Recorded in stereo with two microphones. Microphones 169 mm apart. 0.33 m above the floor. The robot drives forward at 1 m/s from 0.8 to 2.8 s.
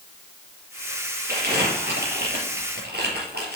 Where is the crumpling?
75° right (ahead or behind), 3.5 m.